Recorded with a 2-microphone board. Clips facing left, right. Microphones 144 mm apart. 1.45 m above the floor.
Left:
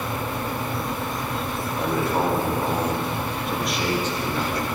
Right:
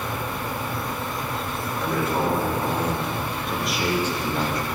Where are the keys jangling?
No keys jangling in this recording.